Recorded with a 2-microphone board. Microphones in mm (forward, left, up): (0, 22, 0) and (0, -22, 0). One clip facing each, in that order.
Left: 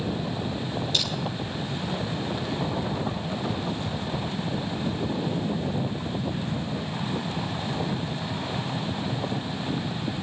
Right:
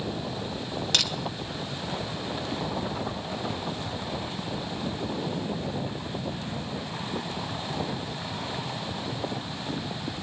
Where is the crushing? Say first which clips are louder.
Right 3 dB; 80° right, 1.6 m.